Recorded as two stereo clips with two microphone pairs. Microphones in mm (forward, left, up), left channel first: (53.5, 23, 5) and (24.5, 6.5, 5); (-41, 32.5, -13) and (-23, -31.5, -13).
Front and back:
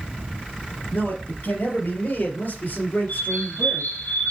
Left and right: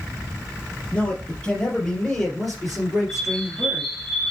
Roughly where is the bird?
Ahead left.